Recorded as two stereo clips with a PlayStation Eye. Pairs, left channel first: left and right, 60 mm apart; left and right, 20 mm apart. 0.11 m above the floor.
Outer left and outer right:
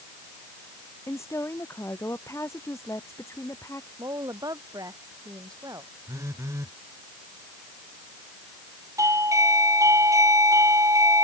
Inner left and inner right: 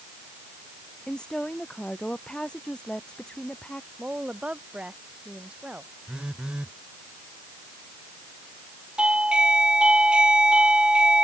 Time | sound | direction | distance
1.1 | a woman speaking | 50° left (ahead or behind) | ?
4.0 | a woman speaking | 80° right | ?
6.1 | a phone buzzing | 55° right (ahead or behind) | ?
9.0 | a doorbell | 60° right (ahead or behind) | ?